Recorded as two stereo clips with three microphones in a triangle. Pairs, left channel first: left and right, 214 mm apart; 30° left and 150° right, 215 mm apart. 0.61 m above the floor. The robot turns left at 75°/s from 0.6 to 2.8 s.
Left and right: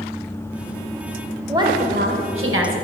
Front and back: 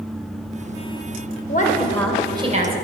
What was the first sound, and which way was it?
A woman speaking, 15° right.